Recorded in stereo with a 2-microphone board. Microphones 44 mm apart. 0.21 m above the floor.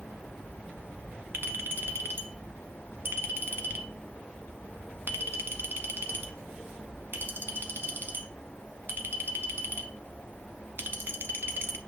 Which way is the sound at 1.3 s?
55° right (ahead or behind).